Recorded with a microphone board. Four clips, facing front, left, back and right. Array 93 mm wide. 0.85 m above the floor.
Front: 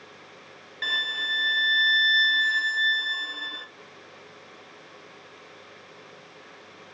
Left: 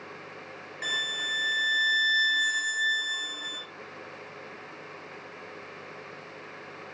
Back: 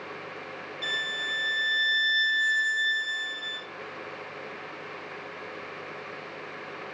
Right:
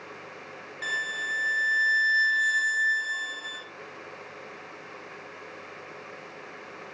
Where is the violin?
20° left, 0.6 m.